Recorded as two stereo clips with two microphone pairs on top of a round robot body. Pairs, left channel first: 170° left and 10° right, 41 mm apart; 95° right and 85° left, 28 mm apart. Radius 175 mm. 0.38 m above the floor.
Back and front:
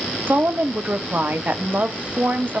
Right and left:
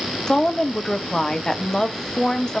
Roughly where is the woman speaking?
Ahead right.